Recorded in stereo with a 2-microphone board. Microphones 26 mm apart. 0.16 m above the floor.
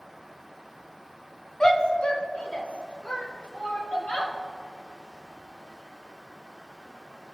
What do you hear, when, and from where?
1.6 s a shout: 25° left (ahead or behind), 1.1 m; by 4.3 s 70° left (ahead or behind), 3.5 m